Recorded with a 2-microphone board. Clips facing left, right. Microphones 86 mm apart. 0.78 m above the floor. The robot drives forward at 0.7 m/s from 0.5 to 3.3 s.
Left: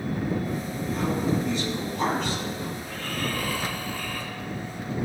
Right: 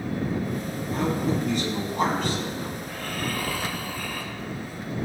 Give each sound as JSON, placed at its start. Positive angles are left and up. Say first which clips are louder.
{"t": 0.9, "sound": "a man speaking", "louder": "right 1 dB", "side_deg": -50, "distance_m": 5.0}
{"t": 2.8, "sound": "snoring", "louder": "even", "side_deg": -15, "distance_m": 2.0}